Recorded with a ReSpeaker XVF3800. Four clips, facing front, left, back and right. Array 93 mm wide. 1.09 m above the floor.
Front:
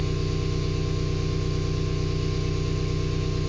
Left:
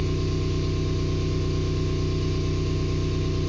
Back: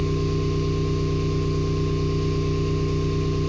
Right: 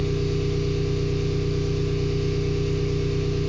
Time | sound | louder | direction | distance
0.0 | an engine running | right 3 dB, back 5 dB | 120° right | 1.6 m